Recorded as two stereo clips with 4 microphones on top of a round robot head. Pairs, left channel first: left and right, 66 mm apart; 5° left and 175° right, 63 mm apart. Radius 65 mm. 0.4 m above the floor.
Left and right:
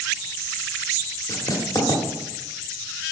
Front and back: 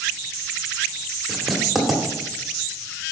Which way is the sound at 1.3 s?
100° left.